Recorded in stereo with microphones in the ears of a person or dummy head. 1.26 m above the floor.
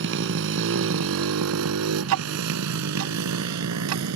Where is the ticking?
80° right.